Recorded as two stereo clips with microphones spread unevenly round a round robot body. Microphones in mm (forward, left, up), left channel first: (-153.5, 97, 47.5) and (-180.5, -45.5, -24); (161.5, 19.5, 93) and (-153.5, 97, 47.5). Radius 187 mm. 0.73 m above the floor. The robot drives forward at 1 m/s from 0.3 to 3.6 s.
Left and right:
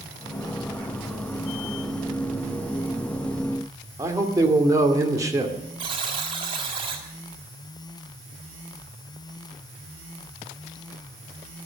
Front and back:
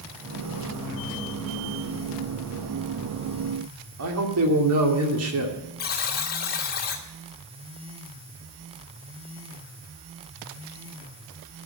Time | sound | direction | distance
4.0 | a man speaking | 155° right | 2.5 m
5.8 | a buzzer | 80° right | 1.6 m